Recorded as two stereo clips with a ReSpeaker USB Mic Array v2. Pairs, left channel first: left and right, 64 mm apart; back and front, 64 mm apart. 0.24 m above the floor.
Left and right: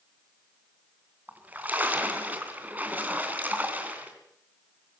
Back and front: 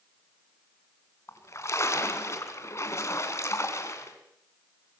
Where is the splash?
150° right, 3 m.